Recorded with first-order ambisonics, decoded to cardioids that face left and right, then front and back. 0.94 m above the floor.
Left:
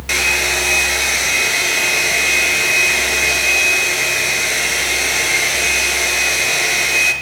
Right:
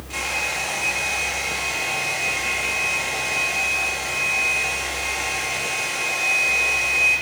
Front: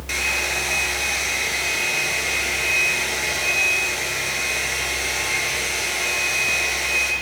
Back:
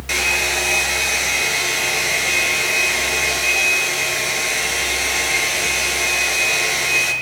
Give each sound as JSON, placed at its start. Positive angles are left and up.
{"t": 0.1, "sound": "a hair dryer", "azimuth_deg": 105, "distance_m": 4.5}